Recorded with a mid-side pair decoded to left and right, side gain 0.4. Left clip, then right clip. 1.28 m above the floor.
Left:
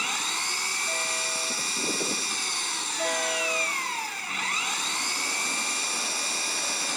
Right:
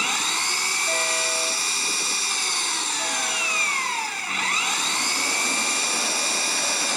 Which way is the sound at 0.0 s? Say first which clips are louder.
Right 5 dB; 40° right.